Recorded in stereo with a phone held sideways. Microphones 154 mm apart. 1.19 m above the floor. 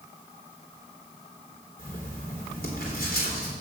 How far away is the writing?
About 3 m.